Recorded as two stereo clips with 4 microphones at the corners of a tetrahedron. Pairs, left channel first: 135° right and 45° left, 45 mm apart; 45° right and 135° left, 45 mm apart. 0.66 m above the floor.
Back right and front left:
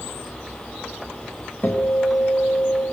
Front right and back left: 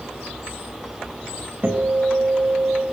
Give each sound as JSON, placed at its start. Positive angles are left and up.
{"t": 1.6, "sound": "a guitar", "azimuth_deg": -175, "distance_m": 4.0}